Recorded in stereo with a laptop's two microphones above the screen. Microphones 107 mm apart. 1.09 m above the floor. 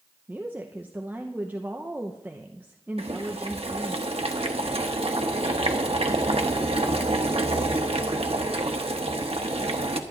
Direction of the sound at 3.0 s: 65° right (ahead or behind).